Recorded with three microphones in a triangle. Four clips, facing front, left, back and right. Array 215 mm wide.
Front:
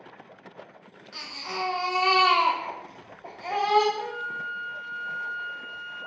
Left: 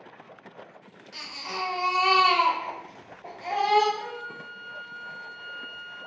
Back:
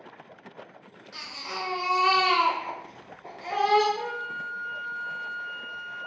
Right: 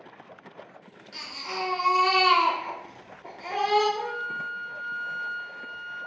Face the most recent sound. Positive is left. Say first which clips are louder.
# right 5 dB, even
turn(degrees=-145)